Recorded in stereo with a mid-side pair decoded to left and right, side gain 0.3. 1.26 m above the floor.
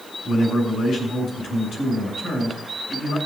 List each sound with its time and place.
0.2 s a man speaking: 70° left, 6 m